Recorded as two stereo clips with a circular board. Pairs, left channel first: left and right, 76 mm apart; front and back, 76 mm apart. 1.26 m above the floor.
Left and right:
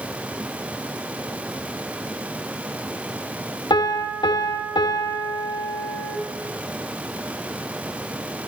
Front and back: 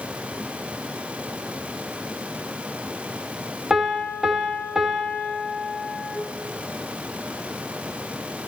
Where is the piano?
95° left, 3 m.